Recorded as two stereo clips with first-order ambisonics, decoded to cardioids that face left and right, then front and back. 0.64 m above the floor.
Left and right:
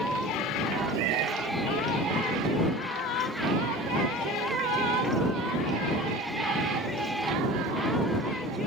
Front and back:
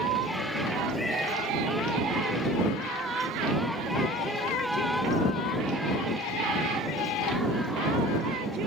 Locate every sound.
0.9 s a cat meowing: 80° right